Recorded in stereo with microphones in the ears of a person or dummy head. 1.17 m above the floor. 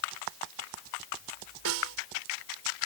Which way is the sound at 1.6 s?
80° right.